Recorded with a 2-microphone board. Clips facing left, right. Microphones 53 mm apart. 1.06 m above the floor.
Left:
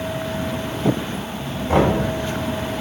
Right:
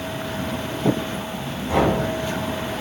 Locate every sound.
1.7 s knocking: 45° left (ahead or behind), 2.5 m